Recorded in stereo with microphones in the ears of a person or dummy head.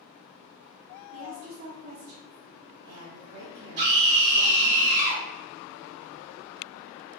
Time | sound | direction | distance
1.1 | a woman speaking | 55° right (ahead or behind) | 0.7 m
3.8 | a scream | 35° right (ahead or behind) | 1.8 m